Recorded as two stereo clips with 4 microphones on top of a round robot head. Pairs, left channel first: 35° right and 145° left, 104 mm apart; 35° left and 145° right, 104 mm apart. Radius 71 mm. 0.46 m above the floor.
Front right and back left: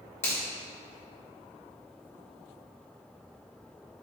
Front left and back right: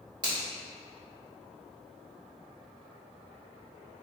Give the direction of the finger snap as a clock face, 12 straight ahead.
3 o'clock.